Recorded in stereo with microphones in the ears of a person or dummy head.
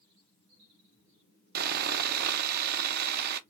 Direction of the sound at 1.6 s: 45° right (ahead or behind).